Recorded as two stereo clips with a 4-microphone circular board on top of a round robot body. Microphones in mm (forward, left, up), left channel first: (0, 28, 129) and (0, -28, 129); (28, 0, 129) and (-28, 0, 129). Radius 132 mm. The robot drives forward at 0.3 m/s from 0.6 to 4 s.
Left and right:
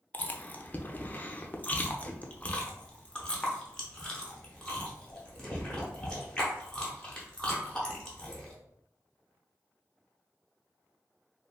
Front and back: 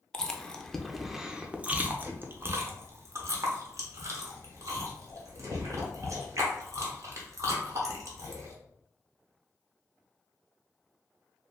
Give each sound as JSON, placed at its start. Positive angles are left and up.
{"t": 0.1, "sound": "chewing", "azimuth_deg": 70, "distance_m": 0.6}